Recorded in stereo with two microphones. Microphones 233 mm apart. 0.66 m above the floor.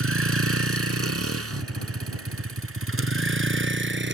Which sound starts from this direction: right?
A vehicle, at 0.0 s.